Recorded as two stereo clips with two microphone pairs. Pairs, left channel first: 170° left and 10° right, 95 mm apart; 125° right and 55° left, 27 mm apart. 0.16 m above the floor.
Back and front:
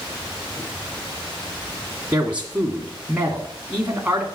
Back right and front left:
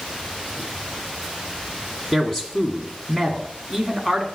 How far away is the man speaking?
About 1.5 m.